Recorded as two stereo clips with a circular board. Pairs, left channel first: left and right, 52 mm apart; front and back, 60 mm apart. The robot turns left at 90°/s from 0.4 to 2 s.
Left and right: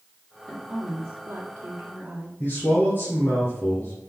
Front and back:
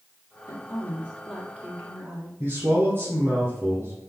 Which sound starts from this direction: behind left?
A man speaking, at 2.4 s.